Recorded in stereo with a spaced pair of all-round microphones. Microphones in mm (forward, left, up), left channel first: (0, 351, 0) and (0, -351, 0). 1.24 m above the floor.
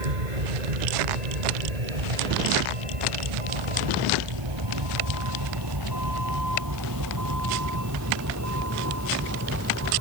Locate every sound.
0.0 s a vehicle: 75° right (ahead or behind); by 10.0 s 20° right (ahead or behind)